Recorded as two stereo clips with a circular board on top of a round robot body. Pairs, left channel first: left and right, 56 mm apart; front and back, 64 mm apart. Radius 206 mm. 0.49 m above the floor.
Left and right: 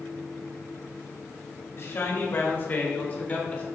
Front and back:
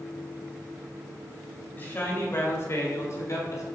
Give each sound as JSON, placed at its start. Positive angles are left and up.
{"t": 1.8, "sound": "a man speaking", "azimuth_deg": 50, "distance_m": 2.0}